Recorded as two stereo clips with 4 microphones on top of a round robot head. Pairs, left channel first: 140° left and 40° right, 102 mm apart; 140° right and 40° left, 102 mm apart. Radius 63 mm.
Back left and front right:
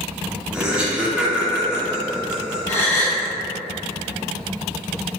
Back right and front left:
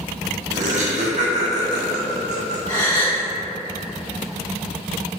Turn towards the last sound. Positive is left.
turn(degrees=150)